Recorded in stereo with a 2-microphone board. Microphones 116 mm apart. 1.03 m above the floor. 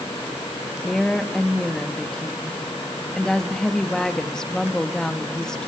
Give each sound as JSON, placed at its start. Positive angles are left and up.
{"t": 0.8, "sound": "a woman speaking", "side_deg": 5, "distance_m": 1.1}